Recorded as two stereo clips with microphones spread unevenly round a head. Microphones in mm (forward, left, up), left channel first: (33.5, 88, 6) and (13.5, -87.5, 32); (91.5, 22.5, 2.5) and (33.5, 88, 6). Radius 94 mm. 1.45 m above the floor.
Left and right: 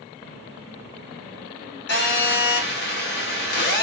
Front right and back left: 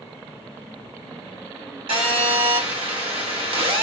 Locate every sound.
1.9 s a phone buzzing: 115° left, 1.8 m